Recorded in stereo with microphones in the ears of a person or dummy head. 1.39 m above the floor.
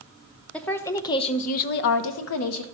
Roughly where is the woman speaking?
Centre.